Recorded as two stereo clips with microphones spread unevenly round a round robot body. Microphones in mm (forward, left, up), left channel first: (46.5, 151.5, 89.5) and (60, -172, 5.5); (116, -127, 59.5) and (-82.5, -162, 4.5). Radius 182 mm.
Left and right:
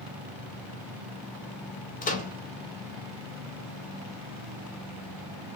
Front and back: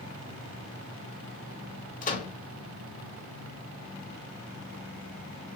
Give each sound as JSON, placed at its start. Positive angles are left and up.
{"t": 2.0, "sound": "a microwave", "azimuth_deg": 25, "distance_m": 0.7}